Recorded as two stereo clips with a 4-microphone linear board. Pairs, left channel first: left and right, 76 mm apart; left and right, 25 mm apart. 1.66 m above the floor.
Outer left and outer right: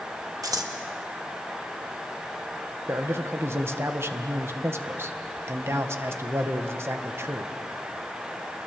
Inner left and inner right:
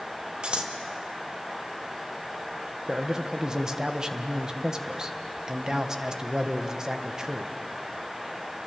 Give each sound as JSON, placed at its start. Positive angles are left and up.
{"t": 0.4, "sound": "scissors", "side_deg": -55, "distance_m": 1.7}
{"t": 2.9, "sound": "a man speaking", "side_deg": -35, "distance_m": 1.6}